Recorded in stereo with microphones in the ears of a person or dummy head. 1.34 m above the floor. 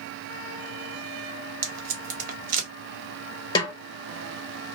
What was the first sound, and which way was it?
Tape being pulled, 50° right (ahead or behind).